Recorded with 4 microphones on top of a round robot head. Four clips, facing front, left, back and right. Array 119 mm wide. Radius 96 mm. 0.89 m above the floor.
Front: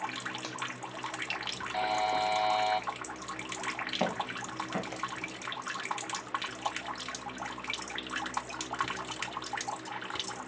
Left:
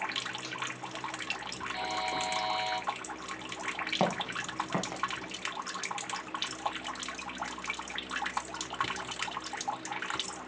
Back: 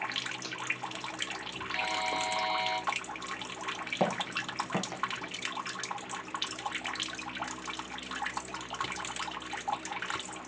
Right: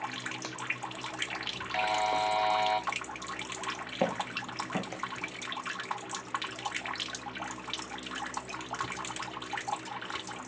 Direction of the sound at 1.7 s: 45° right.